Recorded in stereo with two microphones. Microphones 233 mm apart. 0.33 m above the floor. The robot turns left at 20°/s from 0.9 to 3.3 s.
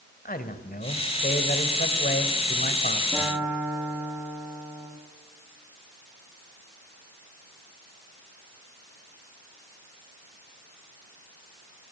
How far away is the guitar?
About 9.5 m.